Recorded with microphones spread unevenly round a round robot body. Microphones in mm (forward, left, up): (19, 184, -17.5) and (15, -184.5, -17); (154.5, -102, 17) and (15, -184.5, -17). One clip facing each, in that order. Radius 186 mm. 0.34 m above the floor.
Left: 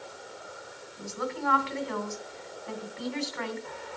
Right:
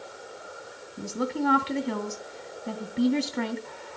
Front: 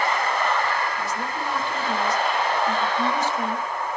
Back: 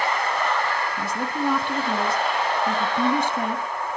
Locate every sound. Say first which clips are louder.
1.0 s a woman speaking: right 6 dB, back 3 dB; 140° right, 2.5 m